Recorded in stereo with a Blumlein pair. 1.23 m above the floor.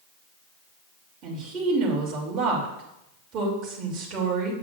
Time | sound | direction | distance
1.2 | a woman speaking | 30° right | 3 m